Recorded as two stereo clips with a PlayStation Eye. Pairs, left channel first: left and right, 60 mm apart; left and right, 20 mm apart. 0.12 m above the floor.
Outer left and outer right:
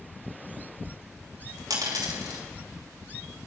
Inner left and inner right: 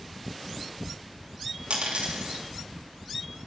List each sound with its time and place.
1.7 s a dropped coin: 85° right, 3 m